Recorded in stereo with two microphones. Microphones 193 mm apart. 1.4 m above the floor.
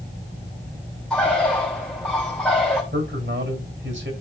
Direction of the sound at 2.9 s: 75° right (ahead or behind).